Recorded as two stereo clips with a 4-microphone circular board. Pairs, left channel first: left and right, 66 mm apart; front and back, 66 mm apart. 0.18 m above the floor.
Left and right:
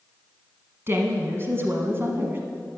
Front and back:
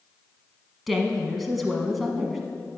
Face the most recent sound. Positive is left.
turn(degrees=-90)